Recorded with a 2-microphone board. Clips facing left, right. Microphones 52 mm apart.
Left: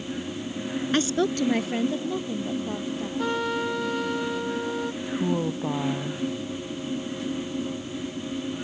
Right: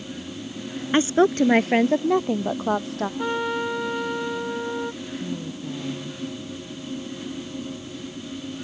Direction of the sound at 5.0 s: 70° left (ahead or behind).